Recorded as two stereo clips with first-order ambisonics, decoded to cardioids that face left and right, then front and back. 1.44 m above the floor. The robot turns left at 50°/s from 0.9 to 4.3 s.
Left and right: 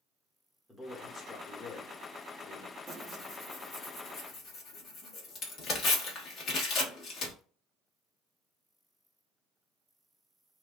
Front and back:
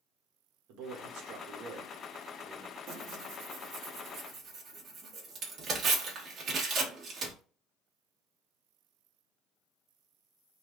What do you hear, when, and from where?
0.7 s a man speaking: 175° left, 1.4 m; by 2.8 s 85° left, 1.4 m
2.9 s tearing paper: 160° right, 1.2 m; by 7.3 s 130° left, 1.2 m